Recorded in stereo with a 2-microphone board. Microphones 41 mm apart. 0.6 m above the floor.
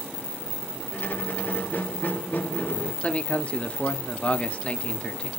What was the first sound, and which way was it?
A squeak, 55° left (ahead or behind).